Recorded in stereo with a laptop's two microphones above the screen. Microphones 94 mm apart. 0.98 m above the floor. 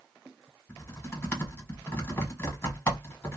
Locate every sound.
0.7 s typing on a keyboard: 25° left (ahead or behind), 1.5 m